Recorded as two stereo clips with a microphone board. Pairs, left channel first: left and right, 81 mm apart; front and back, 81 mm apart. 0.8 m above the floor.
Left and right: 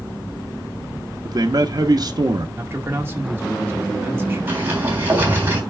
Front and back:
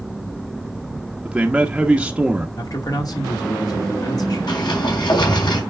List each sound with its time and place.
1.2 s a man speaking: 105° right, 1.0 m
2.6 s a man speaking: 30° right, 2 m
4.5 s a sliding door: 30° right, 3.5 m